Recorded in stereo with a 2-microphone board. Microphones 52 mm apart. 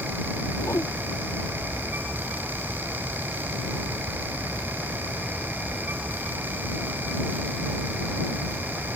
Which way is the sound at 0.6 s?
75° left (ahead or behind).